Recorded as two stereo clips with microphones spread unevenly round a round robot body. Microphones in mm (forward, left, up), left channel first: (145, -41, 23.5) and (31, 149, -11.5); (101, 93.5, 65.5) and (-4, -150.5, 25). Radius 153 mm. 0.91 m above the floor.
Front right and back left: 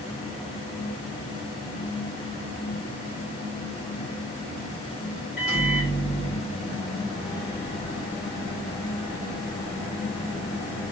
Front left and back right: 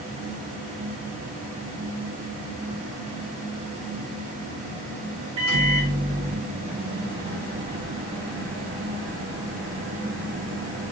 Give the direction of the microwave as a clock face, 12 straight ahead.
5 o'clock.